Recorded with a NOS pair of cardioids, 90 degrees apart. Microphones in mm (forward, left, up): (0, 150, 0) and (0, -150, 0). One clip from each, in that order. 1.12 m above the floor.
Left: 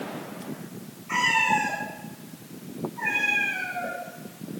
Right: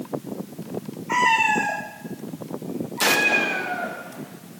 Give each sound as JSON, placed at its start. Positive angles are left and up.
{"t": 1.1, "sound": "a cat meowing", "azimuth_deg": -35, "distance_m": 8.5}